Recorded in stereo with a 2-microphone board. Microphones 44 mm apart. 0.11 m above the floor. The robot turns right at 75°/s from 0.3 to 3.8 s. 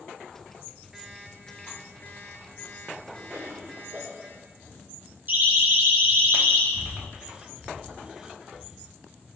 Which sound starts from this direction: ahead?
An alarm clock, at 0.9 s.